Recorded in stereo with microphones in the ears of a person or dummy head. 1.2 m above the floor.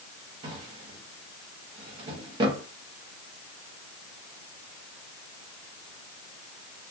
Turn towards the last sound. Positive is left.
turn(degrees=-30)  # may be behind; listen again after turning